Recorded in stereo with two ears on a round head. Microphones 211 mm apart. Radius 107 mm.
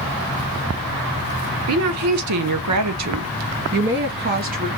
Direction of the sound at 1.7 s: 60° right (ahead or behind).